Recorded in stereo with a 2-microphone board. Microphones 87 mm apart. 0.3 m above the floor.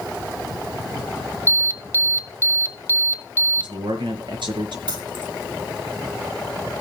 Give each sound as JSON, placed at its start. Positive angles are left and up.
{"t": 1.5, "sound": "an alarm", "side_deg": 30, "distance_m": 1.0}
{"t": 3.6, "sound": "a man speaking", "side_deg": -75, "distance_m": 5.0}
{"t": 4.9, "sound": "keys jangling", "side_deg": -70, "distance_m": 6.5}